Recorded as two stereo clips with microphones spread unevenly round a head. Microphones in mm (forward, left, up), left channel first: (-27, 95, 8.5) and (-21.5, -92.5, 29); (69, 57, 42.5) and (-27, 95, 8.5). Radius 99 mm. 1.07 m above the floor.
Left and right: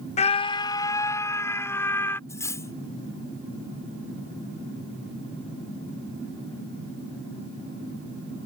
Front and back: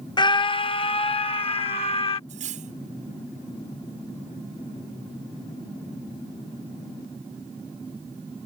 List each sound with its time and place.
0.2 s a scream: 35° left; by 2.2 s 10° left
2.3 s cutlery clinking: 170° left